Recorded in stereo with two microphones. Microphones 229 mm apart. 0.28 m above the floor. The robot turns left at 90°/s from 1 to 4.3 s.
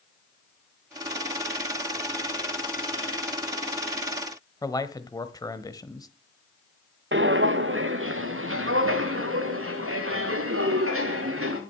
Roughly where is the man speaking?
Centre.